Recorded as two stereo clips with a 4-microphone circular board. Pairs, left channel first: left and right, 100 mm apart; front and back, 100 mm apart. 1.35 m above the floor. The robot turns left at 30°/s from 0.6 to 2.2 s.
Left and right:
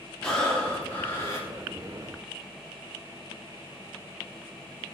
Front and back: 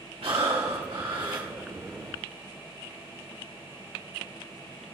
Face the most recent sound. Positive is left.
turn(degrees=120)